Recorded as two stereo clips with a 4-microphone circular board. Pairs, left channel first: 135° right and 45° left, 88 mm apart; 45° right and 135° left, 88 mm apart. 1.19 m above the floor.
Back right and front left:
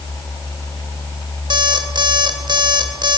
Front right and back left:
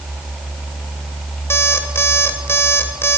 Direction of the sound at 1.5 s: 15° left.